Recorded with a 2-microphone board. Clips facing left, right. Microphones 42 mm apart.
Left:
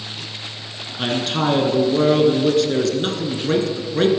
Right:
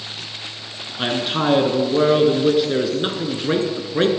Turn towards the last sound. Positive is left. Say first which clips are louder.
# even
turn(degrees=-15)  # may be behind; listen again after turning